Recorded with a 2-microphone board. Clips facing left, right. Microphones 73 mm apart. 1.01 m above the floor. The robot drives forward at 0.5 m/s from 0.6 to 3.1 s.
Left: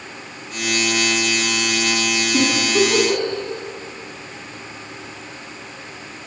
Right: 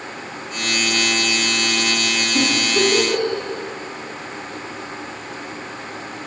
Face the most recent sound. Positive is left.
turn(degrees=75)  # may be behind; listen again after turning